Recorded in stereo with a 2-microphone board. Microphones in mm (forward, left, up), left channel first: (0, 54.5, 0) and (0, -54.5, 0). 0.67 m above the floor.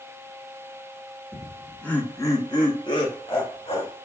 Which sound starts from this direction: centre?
Laughter, at 1.3 s.